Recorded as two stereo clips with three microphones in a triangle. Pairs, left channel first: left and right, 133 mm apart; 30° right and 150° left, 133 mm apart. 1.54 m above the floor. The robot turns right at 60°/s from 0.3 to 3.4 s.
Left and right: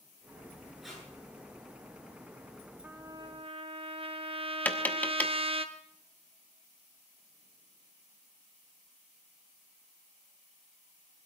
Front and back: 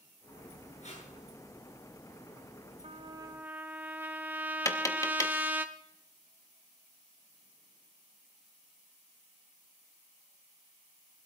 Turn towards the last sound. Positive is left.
turn(degrees=20)